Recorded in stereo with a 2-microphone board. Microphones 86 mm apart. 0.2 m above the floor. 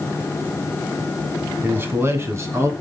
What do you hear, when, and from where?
1.6 s a man speaking: 25° right (ahead or behind), 1.5 m; by 2.7 s 35° right (ahead or behind), 2.5 m